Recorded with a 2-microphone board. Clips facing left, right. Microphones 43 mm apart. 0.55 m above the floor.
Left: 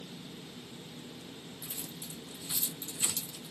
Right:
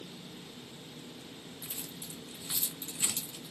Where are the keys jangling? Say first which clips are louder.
Even; 35° right (ahead or behind), 1.6 m.